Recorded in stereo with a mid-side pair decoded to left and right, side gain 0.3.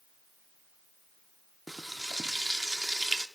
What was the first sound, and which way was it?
Frying, 15° right.